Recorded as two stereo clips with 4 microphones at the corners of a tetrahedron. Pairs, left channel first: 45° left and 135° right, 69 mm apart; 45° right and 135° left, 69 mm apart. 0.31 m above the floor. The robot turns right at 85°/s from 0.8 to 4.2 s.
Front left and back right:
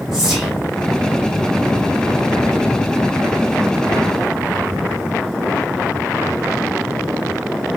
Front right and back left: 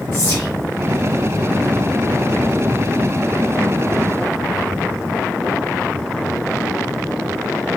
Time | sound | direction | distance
0.1 | whispering | 40° right | 1.0 m